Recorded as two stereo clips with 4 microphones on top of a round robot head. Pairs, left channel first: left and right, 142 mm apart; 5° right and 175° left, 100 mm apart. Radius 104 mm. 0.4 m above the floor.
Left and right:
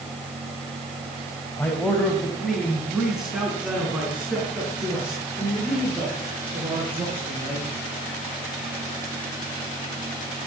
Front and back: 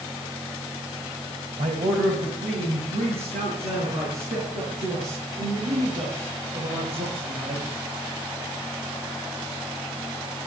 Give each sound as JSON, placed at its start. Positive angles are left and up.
{"t": 1.6, "sound": "a man speaking", "azimuth_deg": 165, "distance_m": 2.5}